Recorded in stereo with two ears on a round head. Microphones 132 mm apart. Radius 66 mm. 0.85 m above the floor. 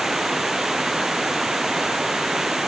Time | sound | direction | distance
0.0 | running water | centre (ahead or behind) | ?